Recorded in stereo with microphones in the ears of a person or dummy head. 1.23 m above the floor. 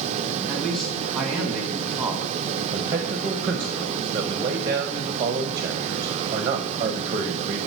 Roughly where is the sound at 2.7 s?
Centre.